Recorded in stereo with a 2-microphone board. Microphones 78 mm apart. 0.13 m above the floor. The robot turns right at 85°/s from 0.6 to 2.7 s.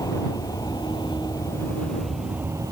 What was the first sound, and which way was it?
An aircraft, 50° left (ahead or behind).